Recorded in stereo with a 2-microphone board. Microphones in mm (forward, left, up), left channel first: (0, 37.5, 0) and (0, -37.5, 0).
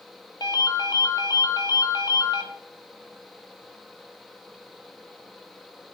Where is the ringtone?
60° left (ahead or behind), 0.6 m.